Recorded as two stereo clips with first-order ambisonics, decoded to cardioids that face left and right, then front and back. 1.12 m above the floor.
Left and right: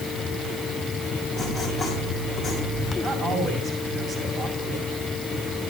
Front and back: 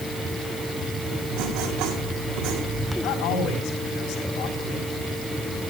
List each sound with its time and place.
1.3 s writing: 175° right, 6.5 m
3.0 s a man speaking: 35° right, 6.5 m